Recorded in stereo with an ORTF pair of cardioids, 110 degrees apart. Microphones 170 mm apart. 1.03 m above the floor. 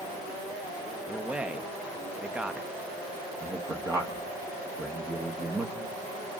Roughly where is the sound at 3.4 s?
Ahead.